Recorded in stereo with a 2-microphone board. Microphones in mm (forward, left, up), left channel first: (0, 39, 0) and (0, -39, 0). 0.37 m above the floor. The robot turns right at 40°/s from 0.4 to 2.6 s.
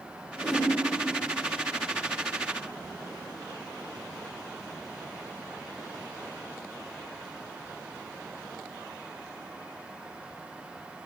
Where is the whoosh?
5° left (ahead or behind), 1.3 m; by 0.7 s centre (ahead or behind), 1.3 m.